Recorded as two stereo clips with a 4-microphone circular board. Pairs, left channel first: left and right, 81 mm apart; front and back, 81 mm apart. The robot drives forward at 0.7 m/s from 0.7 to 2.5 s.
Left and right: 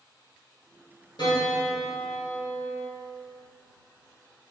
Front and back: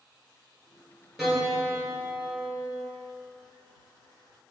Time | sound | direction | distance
1.2 | a piano | 90° left | 1.7 m